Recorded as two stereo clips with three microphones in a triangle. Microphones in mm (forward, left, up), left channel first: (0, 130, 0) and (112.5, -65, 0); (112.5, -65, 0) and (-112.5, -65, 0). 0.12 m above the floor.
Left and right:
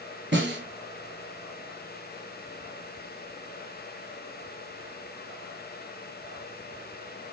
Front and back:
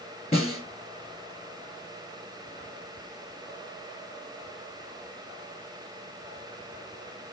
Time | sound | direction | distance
0.3 | a snare drum | 55° right | 2.5 m